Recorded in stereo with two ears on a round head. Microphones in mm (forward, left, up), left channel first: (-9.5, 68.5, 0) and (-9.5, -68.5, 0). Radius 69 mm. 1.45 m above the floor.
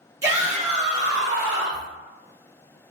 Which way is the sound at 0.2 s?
20° right (ahead or behind).